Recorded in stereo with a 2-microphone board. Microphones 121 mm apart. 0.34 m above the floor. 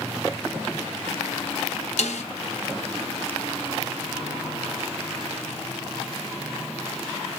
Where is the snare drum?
85° left, 1.1 m.